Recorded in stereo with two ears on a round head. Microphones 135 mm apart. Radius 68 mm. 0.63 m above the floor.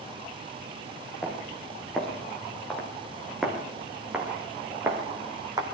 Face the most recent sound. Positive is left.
turn(degrees=-25)  # may be behind; listen again after turning